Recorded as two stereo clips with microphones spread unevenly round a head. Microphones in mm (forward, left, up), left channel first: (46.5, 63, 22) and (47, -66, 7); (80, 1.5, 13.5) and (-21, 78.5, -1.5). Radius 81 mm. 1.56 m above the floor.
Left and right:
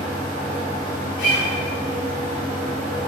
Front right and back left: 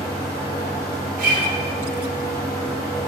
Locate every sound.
0.0 s a fan: 85° right, 1.3 m
1.2 s a guitar: 135° left, 1.1 m